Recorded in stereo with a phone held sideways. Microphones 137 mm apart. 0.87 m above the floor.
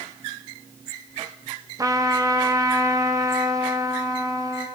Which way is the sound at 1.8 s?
25° right (ahead or behind).